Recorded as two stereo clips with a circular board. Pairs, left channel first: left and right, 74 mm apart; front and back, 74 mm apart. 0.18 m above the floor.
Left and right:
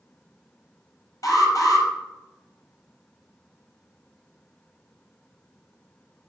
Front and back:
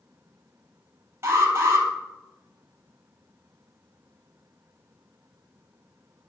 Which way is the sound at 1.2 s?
130° left.